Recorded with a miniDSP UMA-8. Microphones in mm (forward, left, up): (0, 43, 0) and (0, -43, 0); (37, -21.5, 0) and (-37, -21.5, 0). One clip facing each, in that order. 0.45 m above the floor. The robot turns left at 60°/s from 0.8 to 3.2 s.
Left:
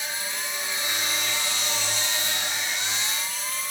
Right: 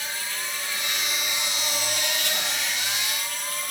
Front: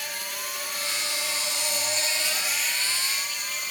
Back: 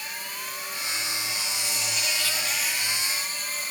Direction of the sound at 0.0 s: 15° left.